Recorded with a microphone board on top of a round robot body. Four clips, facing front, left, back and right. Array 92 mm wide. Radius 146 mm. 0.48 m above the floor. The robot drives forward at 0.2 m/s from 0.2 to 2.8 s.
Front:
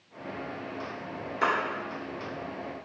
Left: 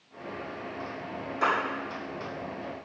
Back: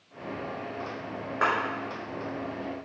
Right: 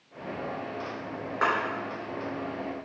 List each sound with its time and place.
1.4 s a clap: 140° right, 6.5 m